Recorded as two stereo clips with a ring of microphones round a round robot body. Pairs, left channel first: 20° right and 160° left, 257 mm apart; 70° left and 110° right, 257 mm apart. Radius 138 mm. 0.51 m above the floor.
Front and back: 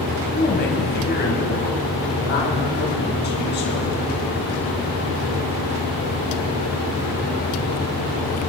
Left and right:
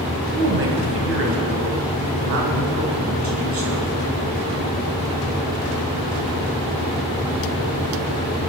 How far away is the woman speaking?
About 3 m.